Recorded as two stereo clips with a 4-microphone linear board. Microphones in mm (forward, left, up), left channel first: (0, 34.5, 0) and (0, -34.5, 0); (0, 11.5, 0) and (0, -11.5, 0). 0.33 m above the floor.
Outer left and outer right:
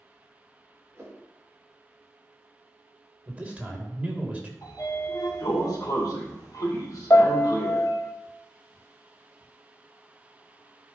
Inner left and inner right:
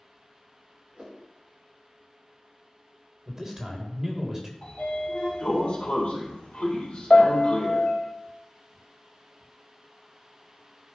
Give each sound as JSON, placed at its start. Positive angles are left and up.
{"t": 0.9, "sound": "a whoosh", "side_deg": -45, "distance_m": 3.0}
{"t": 3.3, "sound": "a man speaking", "side_deg": -20, "distance_m": 1.6}
{"t": 4.6, "sound": "a sliding door", "side_deg": 65, "distance_m": 3.5}
{"t": 7.1, "sound": "a piano", "side_deg": 50, "distance_m": 0.7}